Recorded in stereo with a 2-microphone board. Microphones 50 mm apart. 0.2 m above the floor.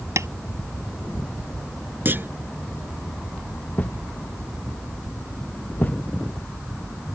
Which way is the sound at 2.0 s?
45° right (ahead or behind).